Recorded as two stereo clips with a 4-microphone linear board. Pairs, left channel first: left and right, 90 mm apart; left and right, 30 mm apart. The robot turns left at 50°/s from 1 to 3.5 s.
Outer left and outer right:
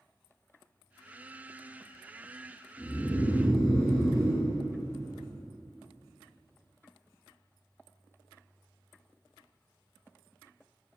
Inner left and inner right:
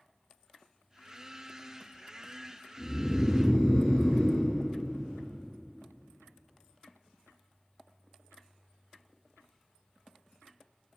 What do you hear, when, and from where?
2.8 s snoring: 35° left, 1.2 m; by 5.2 s straight ahead, 1.2 m